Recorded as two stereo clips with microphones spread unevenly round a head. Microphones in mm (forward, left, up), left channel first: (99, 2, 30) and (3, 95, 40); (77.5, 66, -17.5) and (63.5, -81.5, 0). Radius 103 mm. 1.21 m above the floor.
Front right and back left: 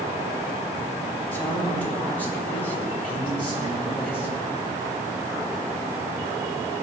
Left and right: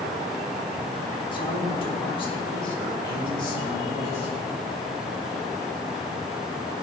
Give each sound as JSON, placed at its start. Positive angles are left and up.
{"t": 1.3, "sound": "a man speaking", "azimuth_deg": 30, "distance_m": 4.0}